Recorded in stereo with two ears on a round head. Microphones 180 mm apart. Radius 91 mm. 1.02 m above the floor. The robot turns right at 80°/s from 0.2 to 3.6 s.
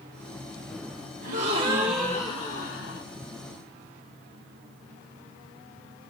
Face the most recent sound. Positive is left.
turn(degrees=130)